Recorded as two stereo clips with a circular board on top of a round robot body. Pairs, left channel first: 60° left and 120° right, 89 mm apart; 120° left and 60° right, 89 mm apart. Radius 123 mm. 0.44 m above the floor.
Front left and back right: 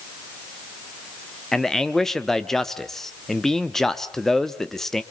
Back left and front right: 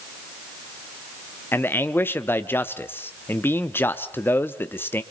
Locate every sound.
1.5 s a man speaking: 140° left, 1.0 m